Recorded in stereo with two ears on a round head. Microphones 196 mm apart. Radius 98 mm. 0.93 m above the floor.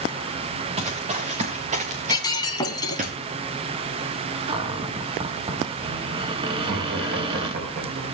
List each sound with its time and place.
0.8 s running footsteps: 30° right (ahead or behind), 3.5 m; by 3.1 s 35° right (ahead or behind), 4.5 m
2.1 s breaking glass: 20° left (ahead or behind), 1.8 m
4.5 s a cupboard door: 25° right (ahead or behind), 1.6 m
6.5 s laughter: 50° right (ahead or behind), 4.5 m